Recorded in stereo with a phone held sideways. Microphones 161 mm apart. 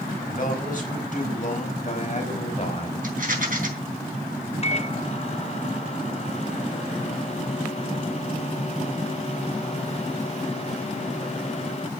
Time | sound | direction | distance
0.3 | a man speaking | 60° left (ahead or behind) | 5 m
3.0 | a rattle | 60° right (ahead or behind) | 3.5 m
4.6 | a microwave | 40° left (ahead or behind) | 0.7 m